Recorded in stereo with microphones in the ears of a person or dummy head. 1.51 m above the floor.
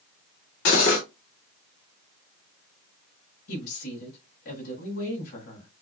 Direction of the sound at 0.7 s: 55° left (ahead or behind).